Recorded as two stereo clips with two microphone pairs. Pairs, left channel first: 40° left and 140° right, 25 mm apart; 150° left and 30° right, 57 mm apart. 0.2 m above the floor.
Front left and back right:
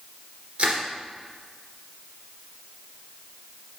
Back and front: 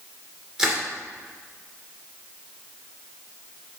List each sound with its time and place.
0.6 s crushing: 105° right, 2.5 m